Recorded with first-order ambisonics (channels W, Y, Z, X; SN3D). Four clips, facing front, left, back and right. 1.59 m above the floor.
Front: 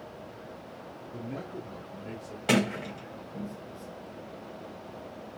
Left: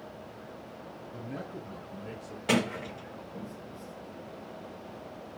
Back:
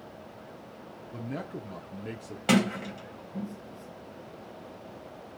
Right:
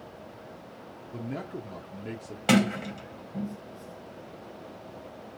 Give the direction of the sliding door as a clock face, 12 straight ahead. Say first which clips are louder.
Right 4 dB, back 1 dB; 4 o'clock.